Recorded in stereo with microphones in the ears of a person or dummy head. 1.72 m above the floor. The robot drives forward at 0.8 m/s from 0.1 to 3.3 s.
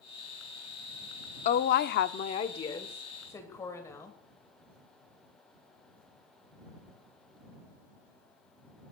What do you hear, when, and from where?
1.4 s a woman speaking: 50° left (ahead or behind), 0.6 m; by 4.2 s 20° left (ahead or behind), 1.3 m